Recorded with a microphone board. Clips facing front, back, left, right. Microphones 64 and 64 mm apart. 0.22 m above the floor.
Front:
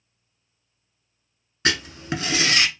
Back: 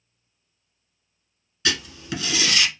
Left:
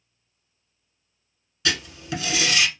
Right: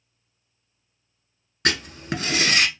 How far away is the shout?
I don't hear a shout.